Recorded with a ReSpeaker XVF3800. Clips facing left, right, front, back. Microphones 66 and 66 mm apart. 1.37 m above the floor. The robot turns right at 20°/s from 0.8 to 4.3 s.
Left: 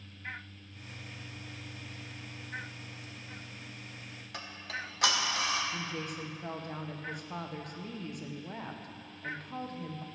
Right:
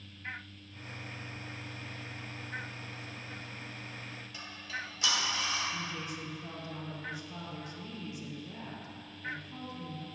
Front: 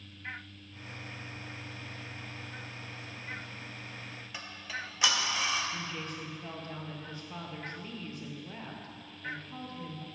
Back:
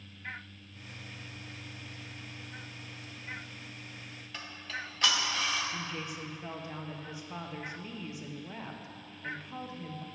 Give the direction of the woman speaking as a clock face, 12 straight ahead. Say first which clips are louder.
Left 1 dB, even; 9 o'clock.